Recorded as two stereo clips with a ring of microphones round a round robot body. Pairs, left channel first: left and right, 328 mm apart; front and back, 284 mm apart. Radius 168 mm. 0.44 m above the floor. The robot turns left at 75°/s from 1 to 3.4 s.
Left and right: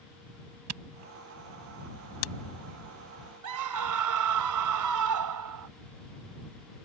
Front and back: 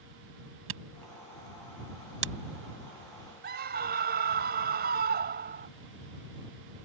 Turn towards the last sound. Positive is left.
turn(degrees=-120)